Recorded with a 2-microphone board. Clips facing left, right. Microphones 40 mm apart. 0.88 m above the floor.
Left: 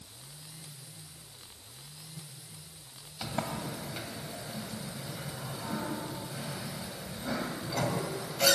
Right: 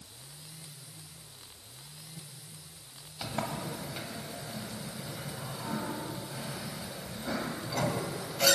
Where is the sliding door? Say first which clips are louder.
Even; 5° left (ahead or behind), 1.6 m.